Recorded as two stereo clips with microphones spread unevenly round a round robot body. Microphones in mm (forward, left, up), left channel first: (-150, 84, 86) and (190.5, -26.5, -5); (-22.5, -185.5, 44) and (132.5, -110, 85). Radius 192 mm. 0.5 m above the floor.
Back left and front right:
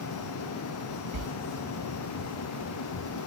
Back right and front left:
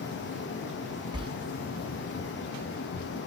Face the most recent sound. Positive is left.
turn(degrees=-40)